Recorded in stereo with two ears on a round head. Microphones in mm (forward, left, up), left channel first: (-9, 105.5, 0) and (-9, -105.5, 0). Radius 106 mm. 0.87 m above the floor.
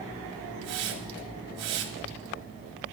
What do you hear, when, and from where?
0.6 s a hiss: 75° right (ahead or behind), 1.7 m